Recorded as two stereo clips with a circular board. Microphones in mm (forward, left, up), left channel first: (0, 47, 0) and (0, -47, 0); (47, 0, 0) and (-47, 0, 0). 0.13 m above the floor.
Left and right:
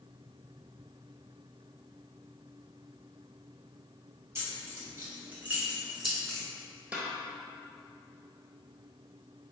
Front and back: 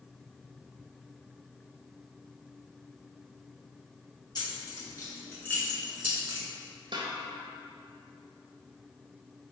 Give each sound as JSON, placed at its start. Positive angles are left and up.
{"t": 4.3, "sound": "keys jangling", "azimuth_deg": -30, "distance_m": 1.9}
{"t": 6.9, "sound": "a snare drum", "azimuth_deg": -165, "distance_m": 0.8}